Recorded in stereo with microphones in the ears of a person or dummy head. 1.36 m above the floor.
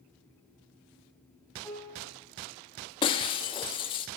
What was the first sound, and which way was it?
A piano, 15° left (ahead or behind).